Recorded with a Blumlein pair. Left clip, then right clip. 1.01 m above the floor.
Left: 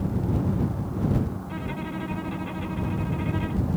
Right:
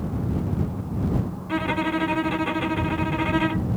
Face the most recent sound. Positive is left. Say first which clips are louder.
# right 10 dB
turn(degrees=-60)